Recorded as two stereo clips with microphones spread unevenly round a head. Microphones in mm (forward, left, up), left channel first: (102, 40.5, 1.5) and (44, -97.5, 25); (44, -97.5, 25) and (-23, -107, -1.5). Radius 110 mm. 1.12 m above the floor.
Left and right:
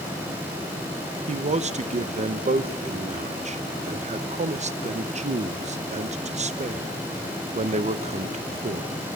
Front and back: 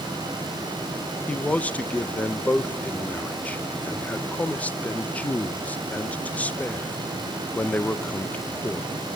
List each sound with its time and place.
1.3 s a man speaking: 70° right, 1.2 m